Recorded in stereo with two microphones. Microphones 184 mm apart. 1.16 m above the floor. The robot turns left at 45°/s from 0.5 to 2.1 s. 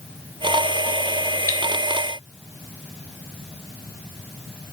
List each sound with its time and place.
1.5 s cutlery clinking: 55° right (ahead or behind), 0.9 m